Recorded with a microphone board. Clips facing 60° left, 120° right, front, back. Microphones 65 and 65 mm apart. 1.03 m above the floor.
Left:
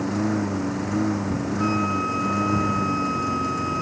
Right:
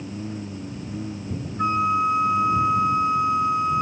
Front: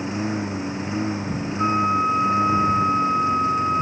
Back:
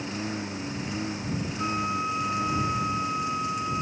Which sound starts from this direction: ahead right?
A flute, at 1.6 s.